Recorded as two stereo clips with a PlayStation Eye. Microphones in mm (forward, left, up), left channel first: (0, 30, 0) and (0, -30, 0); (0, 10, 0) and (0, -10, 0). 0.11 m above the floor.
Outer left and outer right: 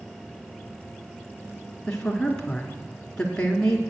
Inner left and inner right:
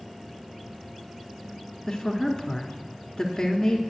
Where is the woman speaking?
15° left (ahead or behind), 1.2 m.